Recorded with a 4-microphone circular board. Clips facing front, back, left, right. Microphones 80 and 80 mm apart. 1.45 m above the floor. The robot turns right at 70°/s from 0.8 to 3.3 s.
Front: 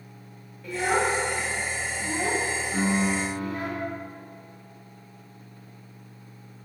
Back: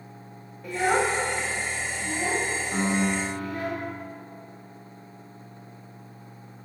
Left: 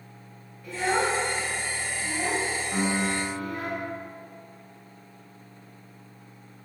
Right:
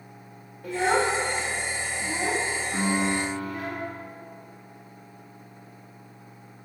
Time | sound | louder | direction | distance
0.6 | a child speaking | back 1 dB, right 2 dB | 130° right | 1.3 m
2.7 | a piano | even, right 2 dB | 165° left | 1.6 m